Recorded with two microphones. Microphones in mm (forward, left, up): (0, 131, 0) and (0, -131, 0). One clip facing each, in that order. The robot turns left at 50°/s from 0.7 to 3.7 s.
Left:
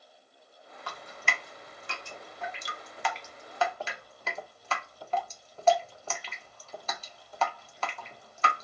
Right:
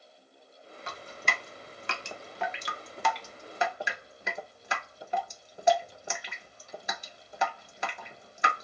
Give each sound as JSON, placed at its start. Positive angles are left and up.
{"t": 0.9, "sound": "dripping", "side_deg": -20, "distance_m": 0.5}